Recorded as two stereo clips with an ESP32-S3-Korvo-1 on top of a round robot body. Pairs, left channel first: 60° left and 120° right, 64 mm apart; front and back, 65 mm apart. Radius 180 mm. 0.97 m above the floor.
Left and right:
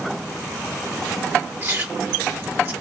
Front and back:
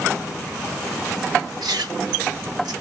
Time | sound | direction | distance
1.6 | chewing | 170° right | 1.5 m